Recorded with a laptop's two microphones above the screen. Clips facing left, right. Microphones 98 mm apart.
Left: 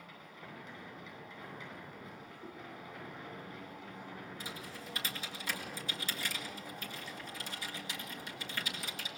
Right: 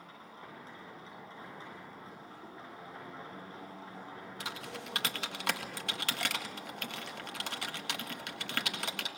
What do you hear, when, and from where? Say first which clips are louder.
0.0 s a machine running: right 1 dB; 35° right (ahead or behind), 10 m
2.4 s a whoosh: left 4 dB; centre (ahead or behind), 9.5 m
4.4 s typing on a keyboard: right 3 dB; 70° right (ahead or behind), 1.6 m